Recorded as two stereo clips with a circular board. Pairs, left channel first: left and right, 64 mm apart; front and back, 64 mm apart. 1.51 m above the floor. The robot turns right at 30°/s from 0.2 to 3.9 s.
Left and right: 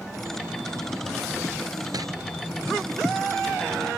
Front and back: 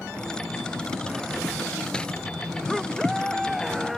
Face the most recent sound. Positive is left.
turn(degrees=-20)